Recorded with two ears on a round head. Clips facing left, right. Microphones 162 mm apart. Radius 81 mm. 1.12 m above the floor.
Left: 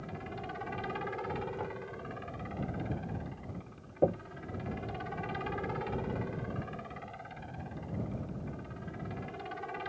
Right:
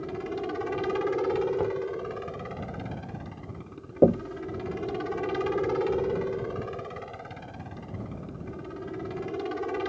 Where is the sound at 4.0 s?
60° right (ahead or behind).